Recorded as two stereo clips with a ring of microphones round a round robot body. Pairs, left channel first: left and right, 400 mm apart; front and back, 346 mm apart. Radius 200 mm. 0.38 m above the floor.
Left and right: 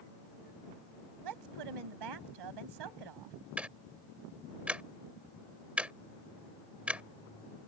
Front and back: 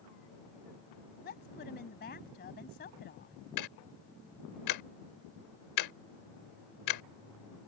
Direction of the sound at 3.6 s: 5° right.